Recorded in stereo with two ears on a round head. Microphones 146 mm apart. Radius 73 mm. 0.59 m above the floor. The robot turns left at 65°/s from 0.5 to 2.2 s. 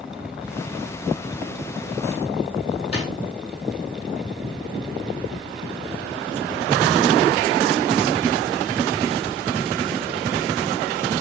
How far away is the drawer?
About 4.5 m.